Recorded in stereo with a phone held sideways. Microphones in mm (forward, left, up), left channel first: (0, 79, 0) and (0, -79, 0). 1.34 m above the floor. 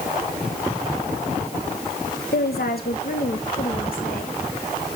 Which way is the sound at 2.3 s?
80° left.